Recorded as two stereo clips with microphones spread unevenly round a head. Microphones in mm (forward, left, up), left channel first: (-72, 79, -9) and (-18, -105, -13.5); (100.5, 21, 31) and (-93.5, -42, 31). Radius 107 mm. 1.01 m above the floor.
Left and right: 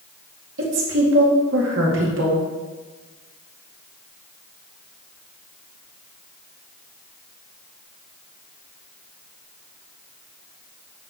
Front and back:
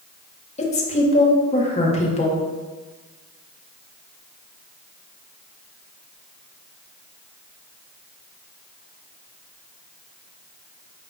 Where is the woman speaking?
40° right, 2 m.